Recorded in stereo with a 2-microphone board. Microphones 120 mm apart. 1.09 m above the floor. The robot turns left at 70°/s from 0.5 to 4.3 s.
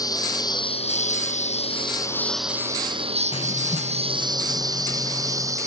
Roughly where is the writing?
Behind left.